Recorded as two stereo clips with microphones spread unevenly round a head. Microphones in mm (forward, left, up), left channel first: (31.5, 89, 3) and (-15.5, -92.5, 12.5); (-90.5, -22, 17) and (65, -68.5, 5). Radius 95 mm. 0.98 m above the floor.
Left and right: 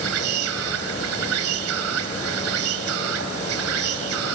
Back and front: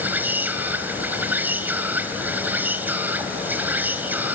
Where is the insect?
95° right, 2.5 m.